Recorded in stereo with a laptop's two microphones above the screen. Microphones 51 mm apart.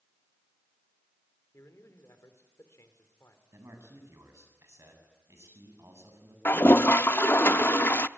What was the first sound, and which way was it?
A man speaking, 75° left (ahead or behind).